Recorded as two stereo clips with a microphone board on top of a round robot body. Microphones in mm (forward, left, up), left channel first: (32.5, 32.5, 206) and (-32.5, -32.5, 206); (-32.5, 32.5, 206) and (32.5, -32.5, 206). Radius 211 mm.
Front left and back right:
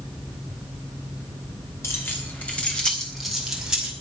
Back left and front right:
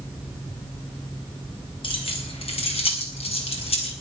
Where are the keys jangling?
110° left, 3.5 m; by 3.9 s 145° left, 5 m.